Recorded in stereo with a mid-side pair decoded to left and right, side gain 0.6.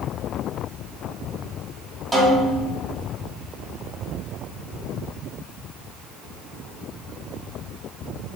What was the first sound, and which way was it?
A snare drum, 10° right.